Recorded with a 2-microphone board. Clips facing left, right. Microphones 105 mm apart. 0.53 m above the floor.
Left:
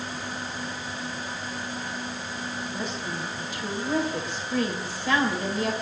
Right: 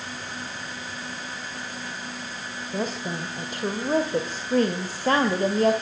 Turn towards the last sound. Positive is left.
turn(degrees=-45)  # may be behind; listen again after turning